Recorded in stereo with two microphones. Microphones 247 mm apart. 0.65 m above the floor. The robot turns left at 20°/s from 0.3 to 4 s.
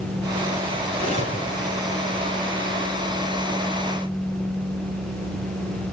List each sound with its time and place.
0.9 s cutlery clinking: 35° right (ahead or behind), 4.5 m; by 1.4 s 25° right (ahead or behind), 4.5 m